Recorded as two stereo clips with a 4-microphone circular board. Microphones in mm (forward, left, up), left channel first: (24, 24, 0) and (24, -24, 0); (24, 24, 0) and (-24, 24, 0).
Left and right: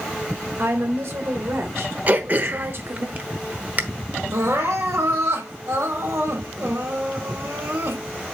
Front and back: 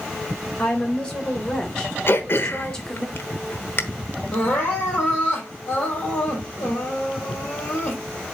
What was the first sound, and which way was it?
A woman speaking, 70° right.